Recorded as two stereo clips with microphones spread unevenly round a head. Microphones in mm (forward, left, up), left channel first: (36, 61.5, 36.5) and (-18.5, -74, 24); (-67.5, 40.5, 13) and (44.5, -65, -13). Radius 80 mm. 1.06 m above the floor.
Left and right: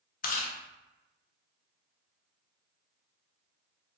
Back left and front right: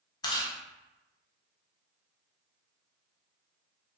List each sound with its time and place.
0.2 s chewing: 65° left, 0.5 m